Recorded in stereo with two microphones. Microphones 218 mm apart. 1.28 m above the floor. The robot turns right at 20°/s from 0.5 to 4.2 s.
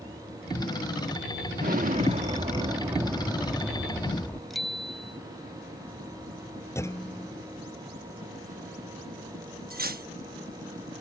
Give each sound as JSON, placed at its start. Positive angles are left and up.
{"t": 1.6, "sound": "an explosion", "azimuth_deg": -45}
{"t": 4.5, "sound": "a bicycle bell", "side_deg": 0}
{"t": 6.8, "sound": "a clunk", "side_deg": 10}
{"t": 9.7, "sound": "cutlery clinking", "side_deg": -40}